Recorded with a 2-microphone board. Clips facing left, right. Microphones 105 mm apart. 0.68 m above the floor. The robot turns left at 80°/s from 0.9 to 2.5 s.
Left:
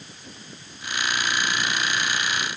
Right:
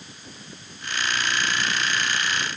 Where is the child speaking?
I don't hear a child speaking.